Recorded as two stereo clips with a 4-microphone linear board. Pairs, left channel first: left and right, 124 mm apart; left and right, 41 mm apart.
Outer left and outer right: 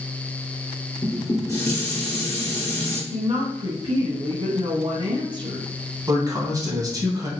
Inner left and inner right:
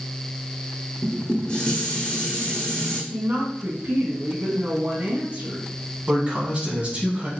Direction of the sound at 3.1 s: 45° right (ahead or behind).